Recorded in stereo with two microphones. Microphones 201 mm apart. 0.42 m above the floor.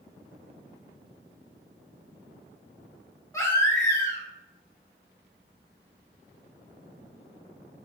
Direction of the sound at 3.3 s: 15° left (ahead or behind).